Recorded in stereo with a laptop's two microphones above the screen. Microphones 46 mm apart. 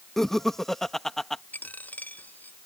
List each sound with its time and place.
0.2 s laughter: 10° left (ahead or behind)
1.5 s a dropped coin: 40° left (ahead or behind)